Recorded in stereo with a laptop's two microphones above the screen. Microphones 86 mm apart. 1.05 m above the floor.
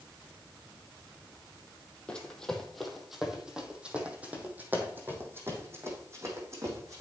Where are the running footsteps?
10° left (ahead or behind), 2 m; by 7.0 s 35° right (ahead or behind), 3.5 m.